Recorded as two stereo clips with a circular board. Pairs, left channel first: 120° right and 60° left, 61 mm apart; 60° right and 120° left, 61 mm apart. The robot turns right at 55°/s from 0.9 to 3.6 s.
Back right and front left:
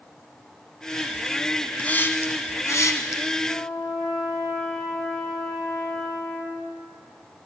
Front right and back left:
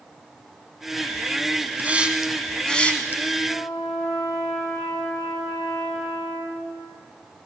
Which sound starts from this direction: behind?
A hiss, at 1.8 s.